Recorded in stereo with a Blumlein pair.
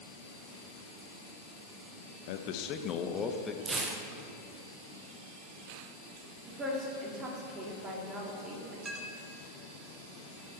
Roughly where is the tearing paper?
Ahead.